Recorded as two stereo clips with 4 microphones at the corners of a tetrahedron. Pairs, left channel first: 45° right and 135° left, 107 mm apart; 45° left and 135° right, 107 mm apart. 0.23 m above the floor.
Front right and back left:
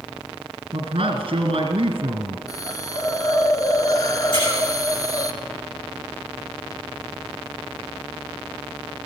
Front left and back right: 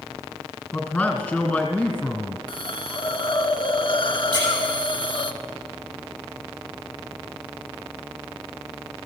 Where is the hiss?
10° left, 0.7 m.